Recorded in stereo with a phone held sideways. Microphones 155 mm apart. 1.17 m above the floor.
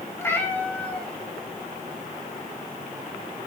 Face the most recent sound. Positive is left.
turn(degrees=-10)  # may be behind; listen again after turning